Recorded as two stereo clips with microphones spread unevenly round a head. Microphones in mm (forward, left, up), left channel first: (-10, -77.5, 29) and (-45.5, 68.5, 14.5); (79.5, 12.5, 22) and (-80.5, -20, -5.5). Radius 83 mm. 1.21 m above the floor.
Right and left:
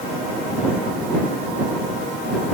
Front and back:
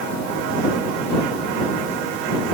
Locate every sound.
Only background noise.